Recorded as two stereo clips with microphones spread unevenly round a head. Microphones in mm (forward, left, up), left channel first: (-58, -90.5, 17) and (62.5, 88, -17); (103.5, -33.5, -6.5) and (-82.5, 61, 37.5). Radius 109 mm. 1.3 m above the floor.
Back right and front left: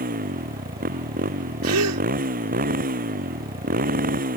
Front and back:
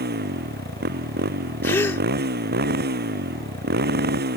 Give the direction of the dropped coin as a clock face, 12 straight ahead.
No dropped coin in this recording.